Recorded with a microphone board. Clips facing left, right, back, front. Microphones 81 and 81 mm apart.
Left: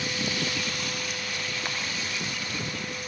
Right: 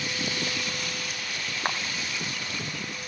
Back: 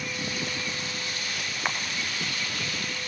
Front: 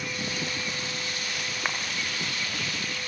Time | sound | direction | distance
1.6 | a camera shutter | 90° right | 1.9 m